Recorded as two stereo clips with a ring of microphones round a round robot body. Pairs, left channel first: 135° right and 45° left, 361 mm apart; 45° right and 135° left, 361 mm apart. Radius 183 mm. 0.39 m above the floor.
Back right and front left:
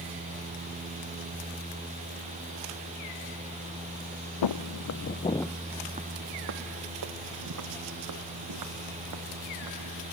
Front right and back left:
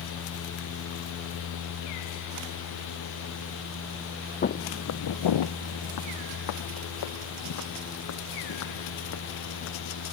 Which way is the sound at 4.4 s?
110° right.